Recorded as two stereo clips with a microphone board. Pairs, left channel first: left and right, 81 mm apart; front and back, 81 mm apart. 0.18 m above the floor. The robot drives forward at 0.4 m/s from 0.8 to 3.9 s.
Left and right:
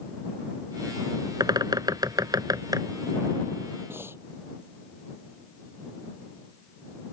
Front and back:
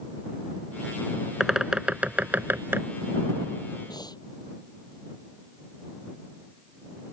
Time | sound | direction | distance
1.4 | a bird | 95° right | ?
3.9 | breathing | 30° right | ?